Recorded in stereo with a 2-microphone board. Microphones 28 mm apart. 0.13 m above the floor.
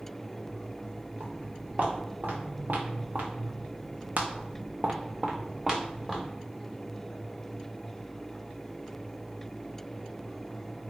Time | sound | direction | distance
1.2 | footsteps | 60° right (ahead or behind) | 1.7 m